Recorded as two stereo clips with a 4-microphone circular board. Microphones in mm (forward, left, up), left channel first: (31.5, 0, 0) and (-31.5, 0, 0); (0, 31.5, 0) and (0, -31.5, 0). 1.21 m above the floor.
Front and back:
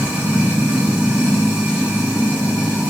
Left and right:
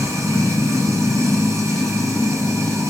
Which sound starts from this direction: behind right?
Running water, at 0.0 s.